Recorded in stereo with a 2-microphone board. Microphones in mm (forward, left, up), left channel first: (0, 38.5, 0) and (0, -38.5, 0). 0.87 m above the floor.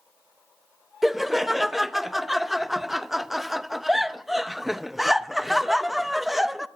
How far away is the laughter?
About 0.5 m.